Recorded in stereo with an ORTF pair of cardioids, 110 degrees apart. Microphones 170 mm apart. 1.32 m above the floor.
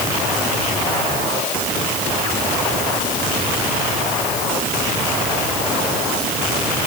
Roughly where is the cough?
No cough in this recording.